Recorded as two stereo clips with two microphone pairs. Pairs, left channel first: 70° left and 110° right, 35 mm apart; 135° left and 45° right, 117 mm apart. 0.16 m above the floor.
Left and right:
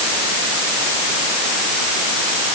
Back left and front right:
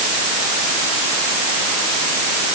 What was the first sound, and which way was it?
Only background noise.